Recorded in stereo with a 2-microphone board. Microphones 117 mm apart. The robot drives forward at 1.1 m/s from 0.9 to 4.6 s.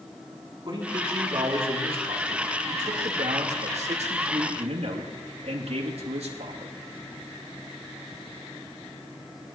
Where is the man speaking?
45° right (ahead or behind), 4 m; by 6.7 s 60° right (ahead or behind), 3 m.